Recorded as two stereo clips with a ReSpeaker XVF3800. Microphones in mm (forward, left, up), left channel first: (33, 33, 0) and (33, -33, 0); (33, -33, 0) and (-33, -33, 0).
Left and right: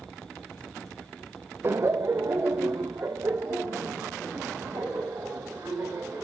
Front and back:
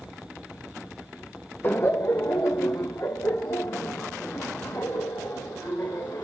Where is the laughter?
50° right, 0.5 m; by 6.2 s 30° right, 3.5 m.